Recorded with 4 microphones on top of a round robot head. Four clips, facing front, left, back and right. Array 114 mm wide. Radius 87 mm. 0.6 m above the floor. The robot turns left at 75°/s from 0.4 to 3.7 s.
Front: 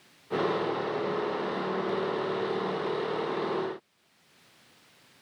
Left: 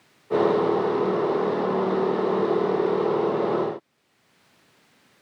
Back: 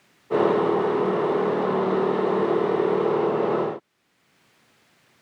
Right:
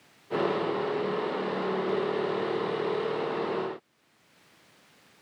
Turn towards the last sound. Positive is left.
No sound to turn to.